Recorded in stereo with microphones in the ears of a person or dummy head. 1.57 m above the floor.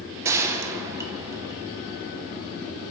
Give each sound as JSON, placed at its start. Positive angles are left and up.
{"t": 0.2, "sound": "a gunshot", "side_deg": -15, "distance_m": 1.6}